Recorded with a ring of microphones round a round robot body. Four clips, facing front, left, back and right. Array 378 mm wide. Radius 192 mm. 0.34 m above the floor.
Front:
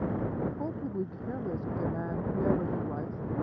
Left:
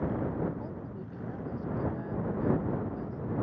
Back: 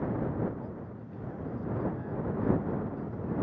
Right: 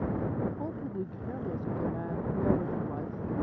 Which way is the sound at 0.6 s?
30° right.